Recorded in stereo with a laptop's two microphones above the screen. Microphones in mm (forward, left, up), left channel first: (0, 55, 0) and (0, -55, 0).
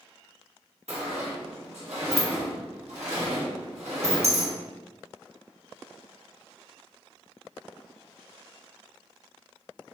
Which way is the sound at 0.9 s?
85° right.